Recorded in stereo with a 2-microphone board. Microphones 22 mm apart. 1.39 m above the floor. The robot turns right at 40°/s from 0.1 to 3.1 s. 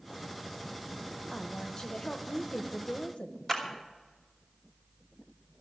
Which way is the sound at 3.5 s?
20° left (ahead or behind).